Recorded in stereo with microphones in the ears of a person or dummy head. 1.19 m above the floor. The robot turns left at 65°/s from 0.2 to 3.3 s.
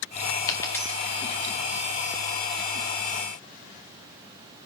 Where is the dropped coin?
20° left (ahead or behind), 0.8 m; by 1.4 s 10° right (ahead or behind), 0.8 m.